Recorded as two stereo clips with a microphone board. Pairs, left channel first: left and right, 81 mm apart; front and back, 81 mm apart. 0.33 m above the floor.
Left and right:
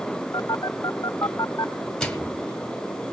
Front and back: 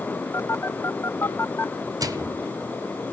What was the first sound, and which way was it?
A phone buzzing, 50° left.